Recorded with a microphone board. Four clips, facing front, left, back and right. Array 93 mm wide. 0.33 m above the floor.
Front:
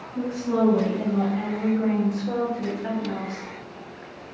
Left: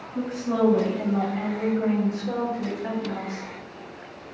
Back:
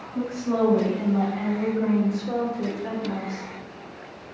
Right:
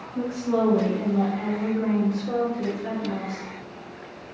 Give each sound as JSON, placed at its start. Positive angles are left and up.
{"t": 0.1, "sound": "a woman speaking", "azimuth_deg": 115, "distance_m": 1.6}